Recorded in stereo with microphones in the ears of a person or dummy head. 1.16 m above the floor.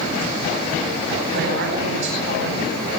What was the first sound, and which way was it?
A woman speaking, 60° right (ahead or behind).